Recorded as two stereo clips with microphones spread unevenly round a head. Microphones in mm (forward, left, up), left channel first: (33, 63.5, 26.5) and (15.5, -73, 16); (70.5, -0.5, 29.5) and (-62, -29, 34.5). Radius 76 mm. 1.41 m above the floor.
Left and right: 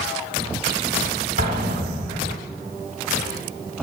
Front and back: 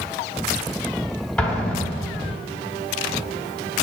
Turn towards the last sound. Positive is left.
turn(degrees=-70)